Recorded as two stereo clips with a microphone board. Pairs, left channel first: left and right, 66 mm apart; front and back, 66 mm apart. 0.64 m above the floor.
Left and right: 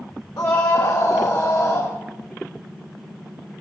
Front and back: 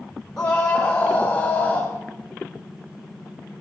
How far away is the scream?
About 2 m.